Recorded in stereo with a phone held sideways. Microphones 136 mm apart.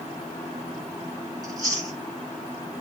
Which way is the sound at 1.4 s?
25° right (ahead or behind).